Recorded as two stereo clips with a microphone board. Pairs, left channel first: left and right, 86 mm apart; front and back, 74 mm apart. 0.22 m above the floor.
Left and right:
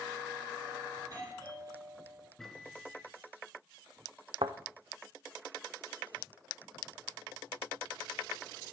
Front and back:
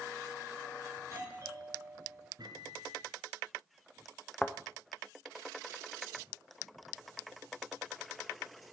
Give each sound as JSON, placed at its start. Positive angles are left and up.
{"t": 1.0, "sound": "a doorbell", "azimuth_deg": -130, "distance_m": 4.0}
{"t": 2.4, "sound": "a microwave", "azimuth_deg": 175, "distance_m": 1.8}
{"t": 4.4, "sound": "a thud", "azimuth_deg": -80, "distance_m": 0.9}